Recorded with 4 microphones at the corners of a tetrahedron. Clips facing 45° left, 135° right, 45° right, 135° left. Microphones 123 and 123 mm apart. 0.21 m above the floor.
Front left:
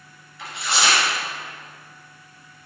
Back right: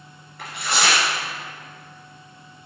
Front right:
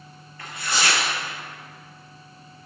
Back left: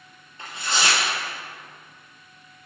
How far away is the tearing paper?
About 2.5 m.